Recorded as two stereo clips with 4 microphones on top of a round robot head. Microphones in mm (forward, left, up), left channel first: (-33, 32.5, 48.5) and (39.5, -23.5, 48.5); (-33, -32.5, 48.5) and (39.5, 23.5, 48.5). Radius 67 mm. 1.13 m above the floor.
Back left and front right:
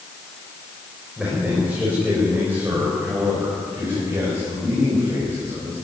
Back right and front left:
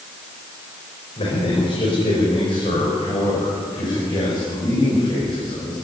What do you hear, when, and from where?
1.2 s a man speaking: 115° right, 5.5 m; by 5.7 s 100° right, 7.5 m